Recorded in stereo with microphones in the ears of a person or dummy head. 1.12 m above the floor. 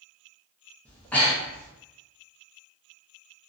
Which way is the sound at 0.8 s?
5° left (ahead or behind).